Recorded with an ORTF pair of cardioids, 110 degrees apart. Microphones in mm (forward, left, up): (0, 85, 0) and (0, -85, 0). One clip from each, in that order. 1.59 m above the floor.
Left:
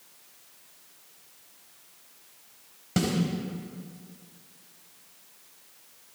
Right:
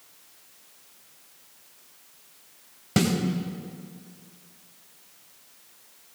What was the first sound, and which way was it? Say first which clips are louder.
A snare drum: right 4 dB; 20° right.